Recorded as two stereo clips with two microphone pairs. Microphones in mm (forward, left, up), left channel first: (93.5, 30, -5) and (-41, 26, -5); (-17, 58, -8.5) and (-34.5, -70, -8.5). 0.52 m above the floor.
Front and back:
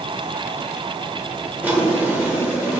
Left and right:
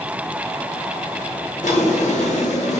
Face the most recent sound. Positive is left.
turn(degrees=100)